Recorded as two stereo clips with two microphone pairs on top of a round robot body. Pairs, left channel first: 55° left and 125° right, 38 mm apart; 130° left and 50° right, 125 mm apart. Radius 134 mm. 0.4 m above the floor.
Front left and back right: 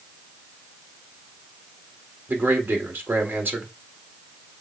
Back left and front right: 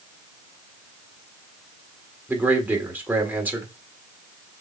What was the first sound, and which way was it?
A man speaking, 115° right.